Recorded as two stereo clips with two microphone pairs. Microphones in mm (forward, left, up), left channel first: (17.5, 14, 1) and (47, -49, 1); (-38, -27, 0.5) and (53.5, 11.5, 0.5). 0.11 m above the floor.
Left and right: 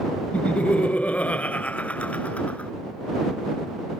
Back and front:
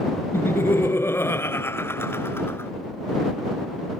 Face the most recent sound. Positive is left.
turn(degrees=165)